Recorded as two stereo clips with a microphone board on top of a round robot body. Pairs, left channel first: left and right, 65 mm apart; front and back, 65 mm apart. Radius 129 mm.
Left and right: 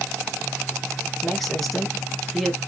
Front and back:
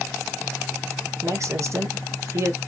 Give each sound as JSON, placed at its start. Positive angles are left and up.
{"t": 1.2, "sound": "a man speaking", "azimuth_deg": 175, "distance_m": 1.2}